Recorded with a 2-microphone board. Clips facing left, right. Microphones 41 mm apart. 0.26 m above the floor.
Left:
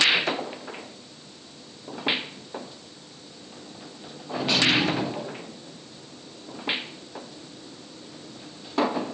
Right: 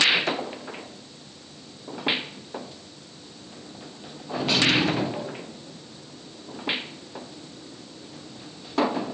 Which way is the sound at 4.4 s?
5° left (ahead or behind).